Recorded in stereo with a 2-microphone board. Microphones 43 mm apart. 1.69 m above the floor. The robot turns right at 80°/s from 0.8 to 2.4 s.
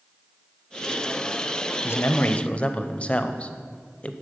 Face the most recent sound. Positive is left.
turn(degrees=150)